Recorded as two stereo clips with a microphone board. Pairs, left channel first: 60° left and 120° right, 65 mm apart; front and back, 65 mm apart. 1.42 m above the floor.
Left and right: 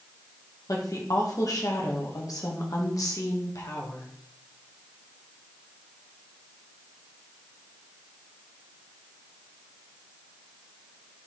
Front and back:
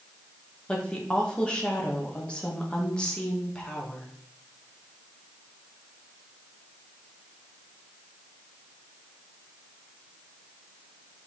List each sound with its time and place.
0.7 s a woman speaking: 75° left, 2.0 m